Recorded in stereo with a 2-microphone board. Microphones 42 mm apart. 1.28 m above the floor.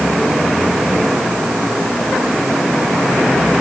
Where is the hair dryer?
No hair dryer in this recording.